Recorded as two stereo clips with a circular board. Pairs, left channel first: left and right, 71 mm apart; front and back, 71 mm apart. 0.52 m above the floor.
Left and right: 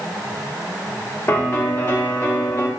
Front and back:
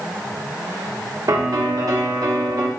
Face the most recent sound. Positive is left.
turn(degrees=145)